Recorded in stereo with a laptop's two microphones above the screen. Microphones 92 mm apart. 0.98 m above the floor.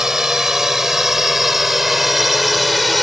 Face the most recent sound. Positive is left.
turn(degrees=0)  # may be behind; listen again after turning